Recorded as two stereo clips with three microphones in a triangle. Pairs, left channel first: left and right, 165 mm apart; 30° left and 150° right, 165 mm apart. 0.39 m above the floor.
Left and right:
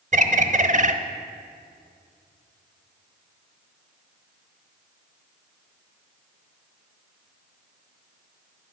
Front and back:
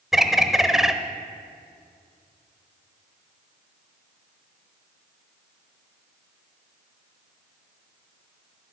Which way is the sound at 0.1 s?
60° right.